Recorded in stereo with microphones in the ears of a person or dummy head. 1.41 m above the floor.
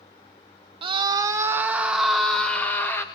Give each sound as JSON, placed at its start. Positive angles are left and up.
{"t": 0.8, "sound": "a scream", "side_deg": -30, "distance_m": 1.3}